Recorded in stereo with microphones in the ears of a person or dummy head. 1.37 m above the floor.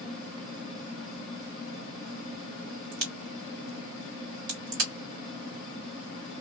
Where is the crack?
60° right (ahead or behind), 1.6 m.